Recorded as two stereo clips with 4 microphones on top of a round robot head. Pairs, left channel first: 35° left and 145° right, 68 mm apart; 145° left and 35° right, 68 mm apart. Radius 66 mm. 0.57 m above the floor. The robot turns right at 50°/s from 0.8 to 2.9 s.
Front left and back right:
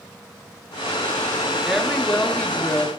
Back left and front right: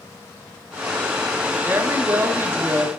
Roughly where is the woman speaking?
Ahead right.